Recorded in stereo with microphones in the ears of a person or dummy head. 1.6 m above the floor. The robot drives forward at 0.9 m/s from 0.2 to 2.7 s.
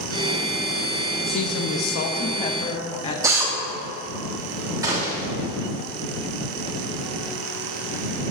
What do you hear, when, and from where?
1.3 s a woman speaking: 60° left (ahead or behind), 0.6 m; by 3.1 s 25° left (ahead or behind), 1.2 m
3.2 s a drill: 20° right (ahead or behind), 2.0 m
4.8 s a gunshot: 20° right (ahead or behind), 3 m